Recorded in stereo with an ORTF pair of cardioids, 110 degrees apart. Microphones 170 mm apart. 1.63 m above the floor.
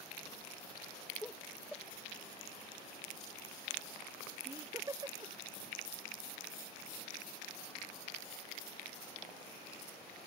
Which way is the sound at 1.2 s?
10° left.